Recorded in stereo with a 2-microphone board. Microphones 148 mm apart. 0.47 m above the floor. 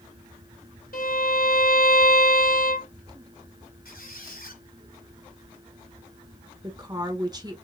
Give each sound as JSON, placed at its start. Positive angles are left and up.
{"t": 0.9, "sound": "a violin", "side_deg": 80, "distance_m": 1.5}
{"t": 3.9, "sound": "a squeak", "side_deg": 80, "distance_m": 1.6}
{"t": 6.6, "sound": "a woman speaking", "side_deg": -25, "distance_m": 1.0}